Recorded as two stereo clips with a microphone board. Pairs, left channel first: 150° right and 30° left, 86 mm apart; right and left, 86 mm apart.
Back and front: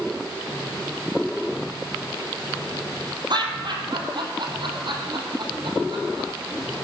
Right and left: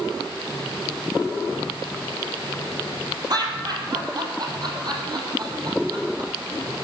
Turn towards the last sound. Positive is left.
turn(degrees=50)